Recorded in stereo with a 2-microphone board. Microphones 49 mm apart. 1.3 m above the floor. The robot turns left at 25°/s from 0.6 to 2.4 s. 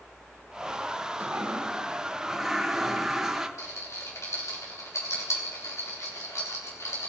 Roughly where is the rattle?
Left.